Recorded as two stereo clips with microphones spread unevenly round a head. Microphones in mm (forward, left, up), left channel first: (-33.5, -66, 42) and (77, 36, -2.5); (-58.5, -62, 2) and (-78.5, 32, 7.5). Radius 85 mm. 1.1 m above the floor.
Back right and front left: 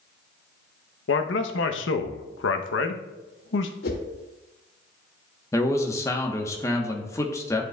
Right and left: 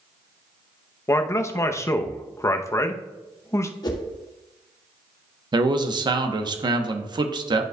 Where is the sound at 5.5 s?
145° left, 0.9 m.